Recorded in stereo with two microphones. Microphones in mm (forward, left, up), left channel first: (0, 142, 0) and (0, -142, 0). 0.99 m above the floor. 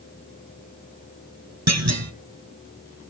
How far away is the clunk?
About 1.5 m.